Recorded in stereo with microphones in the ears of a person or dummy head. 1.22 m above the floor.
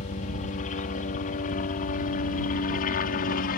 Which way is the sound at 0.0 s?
40° left (ahead or behind).